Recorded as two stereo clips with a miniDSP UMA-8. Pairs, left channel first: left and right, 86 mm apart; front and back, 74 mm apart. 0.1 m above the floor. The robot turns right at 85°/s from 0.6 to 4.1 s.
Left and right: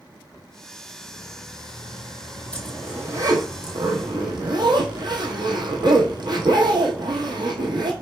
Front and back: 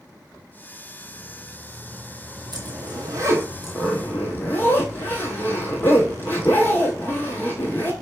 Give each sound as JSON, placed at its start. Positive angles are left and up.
{"t": 2.5, "sound": "a zipper", "azimuth_deg": 165, "distance_m": 1.0}